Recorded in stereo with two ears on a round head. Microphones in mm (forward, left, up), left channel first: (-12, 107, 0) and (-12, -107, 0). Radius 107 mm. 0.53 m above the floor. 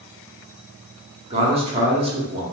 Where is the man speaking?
25° right (ahead or behind), 1.0 m.